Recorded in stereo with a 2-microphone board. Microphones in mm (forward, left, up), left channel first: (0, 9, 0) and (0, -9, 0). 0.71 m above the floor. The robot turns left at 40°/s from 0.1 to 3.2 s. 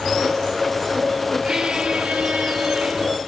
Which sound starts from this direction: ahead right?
A squeak, at 1.4 s.